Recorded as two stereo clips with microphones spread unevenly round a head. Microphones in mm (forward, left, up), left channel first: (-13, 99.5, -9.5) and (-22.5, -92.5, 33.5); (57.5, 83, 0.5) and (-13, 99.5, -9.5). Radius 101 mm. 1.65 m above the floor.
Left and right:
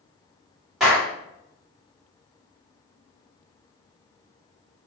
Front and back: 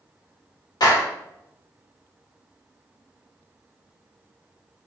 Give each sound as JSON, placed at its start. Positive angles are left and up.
{"t": 0.8, "sound": "a clap", "azimuth_deg": -5, "distance_m": 2.0}